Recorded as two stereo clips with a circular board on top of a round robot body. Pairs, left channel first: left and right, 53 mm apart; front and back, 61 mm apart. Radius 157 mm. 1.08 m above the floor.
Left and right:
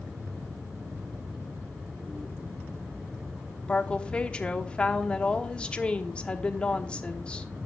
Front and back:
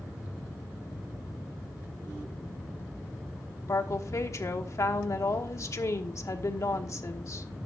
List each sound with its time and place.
3.7 s a woman speaking: 20° left, 1.2 m